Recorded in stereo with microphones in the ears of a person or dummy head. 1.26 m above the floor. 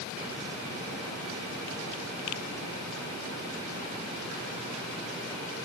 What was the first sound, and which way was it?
Only background noise.